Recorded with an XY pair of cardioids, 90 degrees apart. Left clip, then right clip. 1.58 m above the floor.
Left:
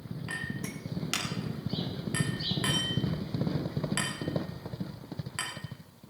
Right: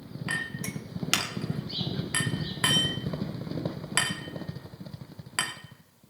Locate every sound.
0.3 s a clink: 65° right, 2.5 m